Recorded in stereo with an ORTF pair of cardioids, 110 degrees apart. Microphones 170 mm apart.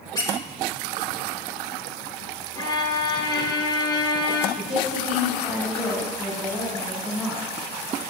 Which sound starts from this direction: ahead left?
A violin, at 2.5 s.